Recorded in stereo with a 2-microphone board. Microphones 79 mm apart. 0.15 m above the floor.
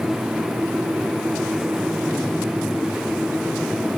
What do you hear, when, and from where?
Only background noise.